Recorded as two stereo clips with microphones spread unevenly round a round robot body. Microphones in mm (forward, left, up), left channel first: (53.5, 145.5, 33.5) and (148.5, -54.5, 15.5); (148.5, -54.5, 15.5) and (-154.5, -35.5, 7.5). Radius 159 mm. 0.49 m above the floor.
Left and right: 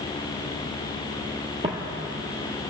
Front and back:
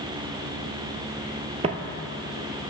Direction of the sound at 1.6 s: 125° right.